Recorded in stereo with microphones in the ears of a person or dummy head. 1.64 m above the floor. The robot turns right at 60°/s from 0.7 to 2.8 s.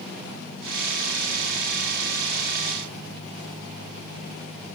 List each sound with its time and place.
Only background noise.